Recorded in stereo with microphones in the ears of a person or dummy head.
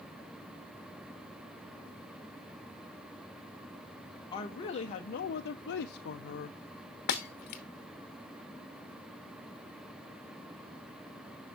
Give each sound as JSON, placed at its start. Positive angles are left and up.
{"t": 4.3, "sound": "a woman speaking", "side_deg": 30, "distance_m": 1.0}
{"t": 7.1, "sound": "breaking glass", "side_deg": 35, "distance_m": 1.0}